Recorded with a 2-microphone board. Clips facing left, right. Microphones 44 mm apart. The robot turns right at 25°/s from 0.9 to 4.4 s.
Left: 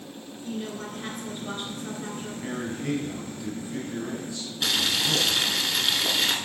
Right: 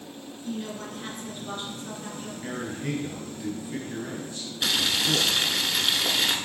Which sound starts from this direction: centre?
Boiling, at 4.6 s.